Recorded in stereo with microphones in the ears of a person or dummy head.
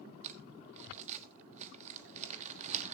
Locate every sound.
0.2 s crumpling: 40° right (ahead or behind), 1.1 m